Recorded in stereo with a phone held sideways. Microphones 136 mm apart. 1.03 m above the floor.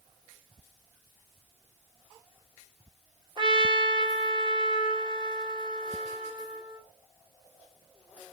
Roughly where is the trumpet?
Right.